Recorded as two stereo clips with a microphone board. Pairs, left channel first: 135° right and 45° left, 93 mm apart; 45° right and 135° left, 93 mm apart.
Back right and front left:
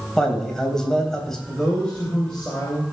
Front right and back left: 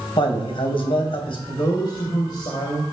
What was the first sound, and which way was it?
A man speaking, 50° right.